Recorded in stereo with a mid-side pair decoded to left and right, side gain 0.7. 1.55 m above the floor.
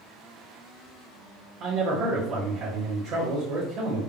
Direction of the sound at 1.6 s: 50° right.